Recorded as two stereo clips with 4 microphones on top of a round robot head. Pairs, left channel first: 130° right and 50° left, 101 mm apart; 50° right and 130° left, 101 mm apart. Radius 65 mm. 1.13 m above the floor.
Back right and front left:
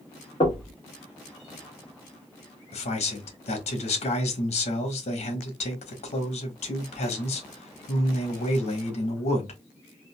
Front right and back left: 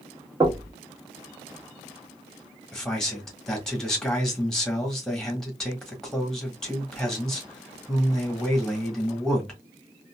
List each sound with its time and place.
0.4 s knocking: 170° right, 1.8 m
2.7 s a man speaking: 135° right, 1.5 m